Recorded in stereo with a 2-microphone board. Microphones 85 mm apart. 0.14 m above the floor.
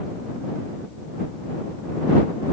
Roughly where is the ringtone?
I don't hear a ringtone.